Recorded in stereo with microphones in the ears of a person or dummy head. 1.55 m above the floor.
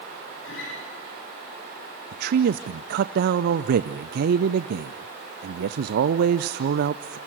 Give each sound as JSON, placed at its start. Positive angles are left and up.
{"t": 0.4, "sound": "a guitar", "side_deg": 75, "distance_m": 8.5}
{"t": 2.1, "sound": "a man speaking", "side_deg": -55, "distance_m": 0.5}